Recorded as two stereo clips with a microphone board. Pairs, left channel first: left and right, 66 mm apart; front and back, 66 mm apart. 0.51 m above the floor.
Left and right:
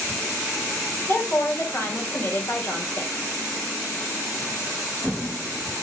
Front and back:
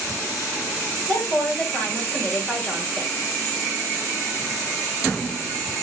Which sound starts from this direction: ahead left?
A woman speaking, at 1.1 s.